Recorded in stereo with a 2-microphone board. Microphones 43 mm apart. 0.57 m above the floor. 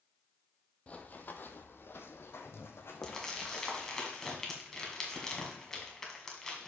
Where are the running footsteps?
30° left (ahead or behind), 0.9 m; by 4.0 s 65° left (ahead or behind), 2 m.